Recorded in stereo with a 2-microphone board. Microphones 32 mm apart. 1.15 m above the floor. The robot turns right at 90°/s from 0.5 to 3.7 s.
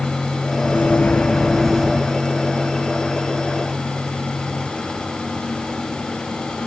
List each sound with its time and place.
0.6 s a microwave: 85° left, 1.4 m; by 2.1 s 145° right, 1.4 m